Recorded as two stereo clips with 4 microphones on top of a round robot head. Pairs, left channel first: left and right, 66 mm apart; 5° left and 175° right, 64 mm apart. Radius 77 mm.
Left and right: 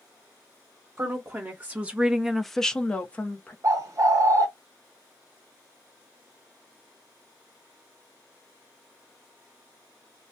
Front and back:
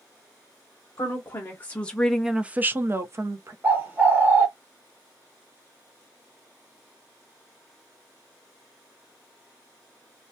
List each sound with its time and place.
1.0 s a woman speaking: 35° right, 0.8 m; by 3.5 s 155° left, 0.9 m
3.6 s a bird: 115° right, 0.7 m